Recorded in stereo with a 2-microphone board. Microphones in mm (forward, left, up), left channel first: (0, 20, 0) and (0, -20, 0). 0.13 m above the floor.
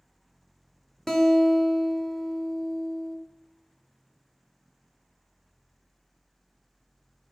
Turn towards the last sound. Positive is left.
turn(degrees=15)  # may be behind; listen again after turning